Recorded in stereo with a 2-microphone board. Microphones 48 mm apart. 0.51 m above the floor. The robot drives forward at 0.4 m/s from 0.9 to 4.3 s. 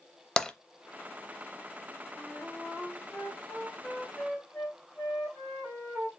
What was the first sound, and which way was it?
Tapping, 15° left (ahead or behind).